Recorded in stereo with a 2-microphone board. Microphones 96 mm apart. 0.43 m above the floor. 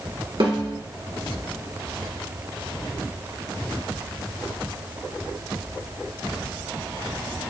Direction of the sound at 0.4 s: 65° right (ahead or behind).